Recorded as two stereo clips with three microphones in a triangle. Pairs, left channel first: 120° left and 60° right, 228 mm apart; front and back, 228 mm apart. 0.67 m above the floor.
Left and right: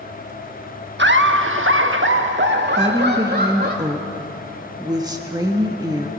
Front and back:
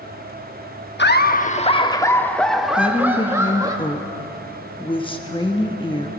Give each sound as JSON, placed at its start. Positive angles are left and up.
{"t": 1.0, "sound": "laughter", "azimuth_deg": -30, "distance_m": 1.0}
{"t": 2.8, "sound": "a woman speaking", "azimuth_deg": -20, "distance_m": 1.1}